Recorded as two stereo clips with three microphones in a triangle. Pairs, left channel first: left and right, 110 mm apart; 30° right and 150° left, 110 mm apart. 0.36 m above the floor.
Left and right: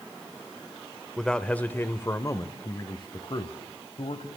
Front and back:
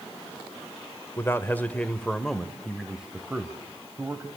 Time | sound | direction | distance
1.2 | a man speaking | 5° left | 1.2 m